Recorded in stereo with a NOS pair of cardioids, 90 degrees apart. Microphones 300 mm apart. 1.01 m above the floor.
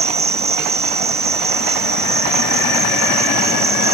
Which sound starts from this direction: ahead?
An insect, at 0.0 s.